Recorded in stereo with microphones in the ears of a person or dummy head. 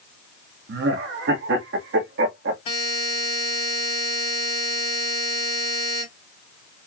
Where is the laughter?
60° right (ahead or behind), 1.4 m.